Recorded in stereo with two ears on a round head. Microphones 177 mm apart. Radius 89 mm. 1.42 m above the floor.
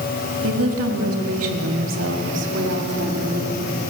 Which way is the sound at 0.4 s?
85° right.